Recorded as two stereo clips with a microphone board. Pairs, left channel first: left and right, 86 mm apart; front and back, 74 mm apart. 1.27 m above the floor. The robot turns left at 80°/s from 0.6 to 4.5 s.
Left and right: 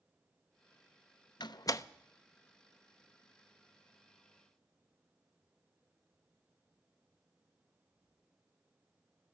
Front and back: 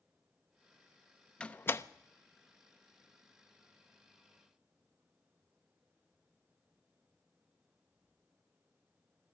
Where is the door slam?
75° left, 0.5 m; by 1.9 s 40° left, 0.5 m.